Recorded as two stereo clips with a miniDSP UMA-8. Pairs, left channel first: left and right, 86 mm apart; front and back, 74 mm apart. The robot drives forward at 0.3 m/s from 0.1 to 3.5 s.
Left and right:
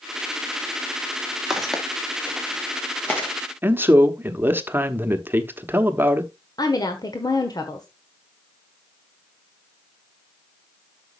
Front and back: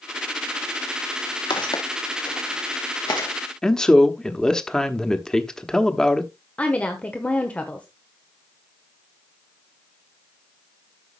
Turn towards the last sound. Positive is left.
turn(degrees=70)